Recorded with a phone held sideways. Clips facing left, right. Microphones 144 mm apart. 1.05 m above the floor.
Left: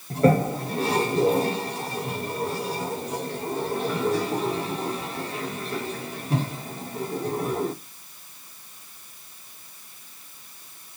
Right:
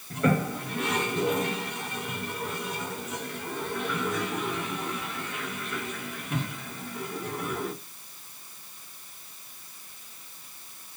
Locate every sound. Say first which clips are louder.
0.1 s a toilet flushing: left 6 dB; 35° left (ahead or behind), 0.9 m